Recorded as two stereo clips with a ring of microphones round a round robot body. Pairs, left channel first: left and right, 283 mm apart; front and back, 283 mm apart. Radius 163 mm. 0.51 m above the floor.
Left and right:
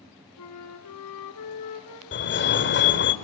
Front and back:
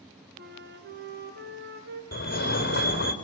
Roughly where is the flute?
Behind left.